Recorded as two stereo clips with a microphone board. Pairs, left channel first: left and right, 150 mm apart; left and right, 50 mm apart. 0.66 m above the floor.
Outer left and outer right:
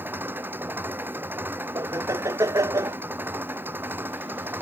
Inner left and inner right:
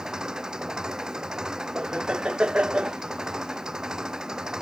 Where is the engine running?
15° right (ahead or behind).